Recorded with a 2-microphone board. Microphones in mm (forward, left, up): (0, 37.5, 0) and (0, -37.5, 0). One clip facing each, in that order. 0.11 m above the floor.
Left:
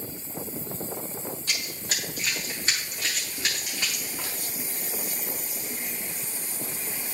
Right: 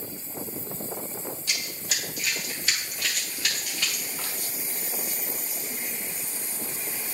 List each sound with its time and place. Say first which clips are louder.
1.5 s running footsteps: left 1 dB; 45° left (ahead or behind), 4.5 m; by 4.3 s 15° left (ahead or behind), 4.5 m